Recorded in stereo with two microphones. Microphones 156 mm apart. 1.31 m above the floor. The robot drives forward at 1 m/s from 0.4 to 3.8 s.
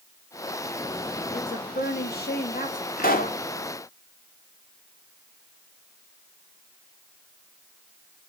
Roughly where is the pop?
Left.